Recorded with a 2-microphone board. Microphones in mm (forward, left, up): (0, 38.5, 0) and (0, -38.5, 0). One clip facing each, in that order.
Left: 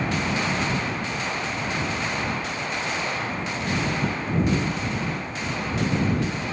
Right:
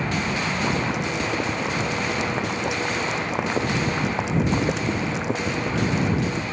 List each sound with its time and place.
0.6 s boiling: 90° right